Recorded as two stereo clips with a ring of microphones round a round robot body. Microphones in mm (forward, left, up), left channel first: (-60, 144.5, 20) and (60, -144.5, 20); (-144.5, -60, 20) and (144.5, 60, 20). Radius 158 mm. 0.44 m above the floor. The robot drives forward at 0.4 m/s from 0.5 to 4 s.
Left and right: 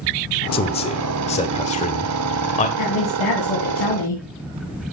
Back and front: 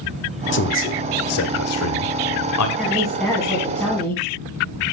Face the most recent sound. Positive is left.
turn(degrees=120)